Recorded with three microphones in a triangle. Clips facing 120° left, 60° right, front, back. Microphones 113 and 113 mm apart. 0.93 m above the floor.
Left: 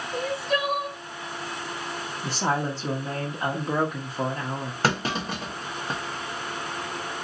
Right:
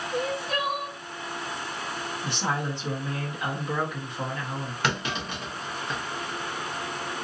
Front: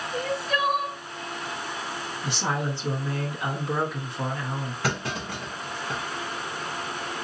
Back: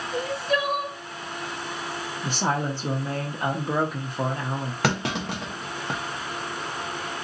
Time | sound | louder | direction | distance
0.1 | crying | left 2 dB, back 2 dB | 120° right | 3.5 m
2.2 | a woman speaking | left 4 dB, back 3 dB | 155° left | 1.1 m
4.8 | a clunk | left 4 dB, back 5 dB | 170° left | 0.9 m